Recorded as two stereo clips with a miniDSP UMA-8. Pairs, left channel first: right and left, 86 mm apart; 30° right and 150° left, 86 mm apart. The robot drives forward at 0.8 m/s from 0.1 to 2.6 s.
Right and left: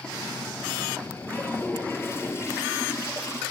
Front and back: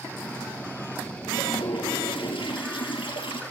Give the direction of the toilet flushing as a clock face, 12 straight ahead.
1 o'clock.